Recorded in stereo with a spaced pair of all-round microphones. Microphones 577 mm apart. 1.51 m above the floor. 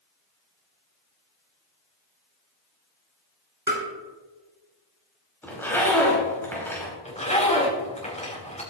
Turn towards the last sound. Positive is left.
turn(degrees=10)  # may be behind; listen again after turning